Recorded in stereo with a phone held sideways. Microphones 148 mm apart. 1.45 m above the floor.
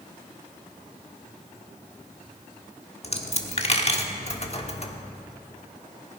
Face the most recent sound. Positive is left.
turn(degrees=45)  # may be behind; listen again after turning